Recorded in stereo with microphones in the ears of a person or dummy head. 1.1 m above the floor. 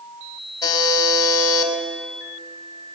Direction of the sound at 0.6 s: 15° left (ahead or behind).